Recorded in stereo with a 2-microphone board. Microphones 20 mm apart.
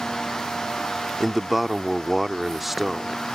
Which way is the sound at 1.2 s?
5° right (ahead or behind).